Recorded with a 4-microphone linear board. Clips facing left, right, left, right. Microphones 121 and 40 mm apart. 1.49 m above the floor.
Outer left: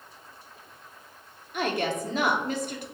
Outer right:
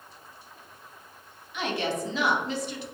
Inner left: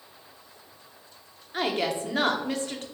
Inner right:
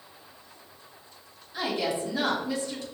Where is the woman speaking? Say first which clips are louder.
Outer left 2 dB, inner left 2 dB; 50° left (ahead or behind), 0.9 m.